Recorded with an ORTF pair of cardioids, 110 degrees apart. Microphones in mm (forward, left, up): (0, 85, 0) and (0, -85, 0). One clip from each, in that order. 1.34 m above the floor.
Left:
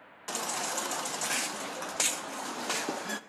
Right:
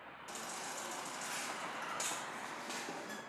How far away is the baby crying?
About 0.7 m.